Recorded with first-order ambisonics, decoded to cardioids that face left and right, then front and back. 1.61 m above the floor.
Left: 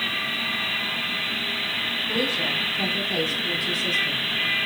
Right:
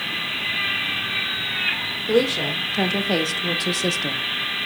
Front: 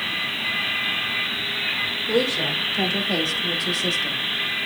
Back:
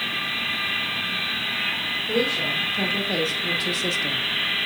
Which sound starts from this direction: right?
A woman speaking, at 2.1 s.